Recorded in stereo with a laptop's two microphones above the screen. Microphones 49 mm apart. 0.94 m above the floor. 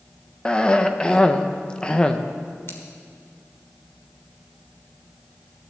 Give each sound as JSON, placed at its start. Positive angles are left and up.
{"t": 0.5, "sound": "a cough", "side_deg": 20, "distance_m": 0.7}
{"t": 2.7, "sound": "scissors", "side_deg": 55, "distance_m": 1.6}